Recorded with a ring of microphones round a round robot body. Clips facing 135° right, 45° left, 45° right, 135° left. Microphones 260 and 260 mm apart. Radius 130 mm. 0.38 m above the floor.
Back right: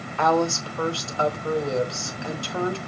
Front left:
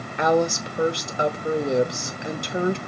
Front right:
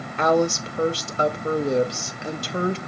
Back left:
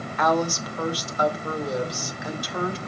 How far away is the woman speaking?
About 0.8 m.